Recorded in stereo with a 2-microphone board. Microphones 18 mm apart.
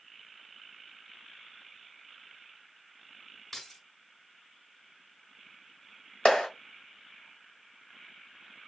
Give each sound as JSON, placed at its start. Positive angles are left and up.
{"t": 3.5, "sound": "keys jangling", "side_deg": 25, "distance_m": 1.2}
{"t": 6.2, "sound": "a clap", "side_deg": 50, "distance_m": 1.4}